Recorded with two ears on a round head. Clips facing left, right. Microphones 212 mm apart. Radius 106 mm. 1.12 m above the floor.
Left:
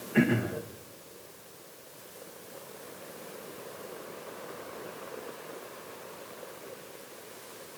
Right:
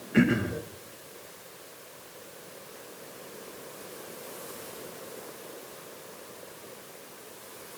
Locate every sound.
0.1 s throat clearing: 25° right (ahead or behind), 1.2 m